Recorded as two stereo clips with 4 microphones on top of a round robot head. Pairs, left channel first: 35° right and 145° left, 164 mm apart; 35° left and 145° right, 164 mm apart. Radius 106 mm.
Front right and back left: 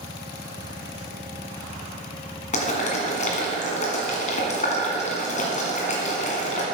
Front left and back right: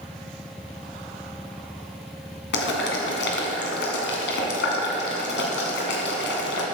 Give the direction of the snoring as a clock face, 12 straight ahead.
I don't hear snoring.